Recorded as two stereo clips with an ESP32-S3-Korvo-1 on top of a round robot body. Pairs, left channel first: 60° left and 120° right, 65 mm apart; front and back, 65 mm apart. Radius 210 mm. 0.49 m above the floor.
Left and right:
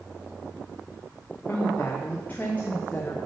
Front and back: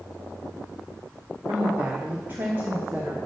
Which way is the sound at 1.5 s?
125° left.